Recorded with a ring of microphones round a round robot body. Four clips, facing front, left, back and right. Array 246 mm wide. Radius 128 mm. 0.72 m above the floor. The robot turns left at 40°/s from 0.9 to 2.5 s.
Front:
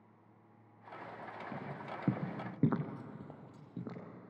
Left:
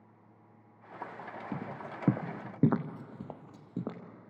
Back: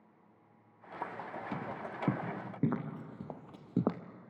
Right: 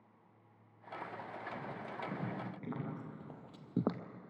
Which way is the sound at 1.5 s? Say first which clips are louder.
Left 6 dB, back 4 dB; 115° left.